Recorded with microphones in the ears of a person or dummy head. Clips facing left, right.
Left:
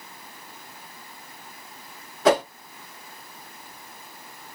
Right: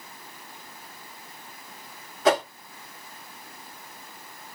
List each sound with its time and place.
2.2 s a whoosh: 55° left (ahead or behind), 1.6 m